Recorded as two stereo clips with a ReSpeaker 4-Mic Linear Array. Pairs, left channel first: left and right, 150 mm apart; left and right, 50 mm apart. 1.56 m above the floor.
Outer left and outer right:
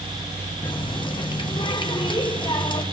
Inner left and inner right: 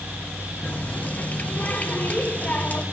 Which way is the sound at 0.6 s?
30° left (ahead or behind).